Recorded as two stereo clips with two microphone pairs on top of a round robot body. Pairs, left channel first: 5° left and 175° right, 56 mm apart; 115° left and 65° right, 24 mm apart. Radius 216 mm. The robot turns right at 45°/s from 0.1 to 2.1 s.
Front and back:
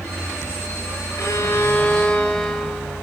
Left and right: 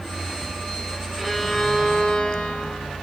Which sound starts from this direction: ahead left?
A violin, at 1.2 s.